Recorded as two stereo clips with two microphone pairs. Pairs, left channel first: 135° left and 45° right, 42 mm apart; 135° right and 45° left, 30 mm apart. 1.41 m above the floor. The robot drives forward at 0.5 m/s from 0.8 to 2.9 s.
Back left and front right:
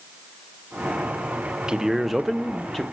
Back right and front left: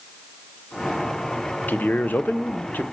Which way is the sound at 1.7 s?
120° right.